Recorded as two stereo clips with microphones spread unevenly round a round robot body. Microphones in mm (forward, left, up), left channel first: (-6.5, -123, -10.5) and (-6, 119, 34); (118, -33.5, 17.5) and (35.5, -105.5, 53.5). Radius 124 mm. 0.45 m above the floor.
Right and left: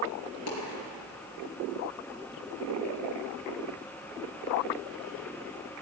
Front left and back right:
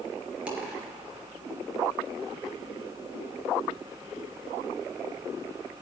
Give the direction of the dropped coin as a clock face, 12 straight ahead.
2 o'clock.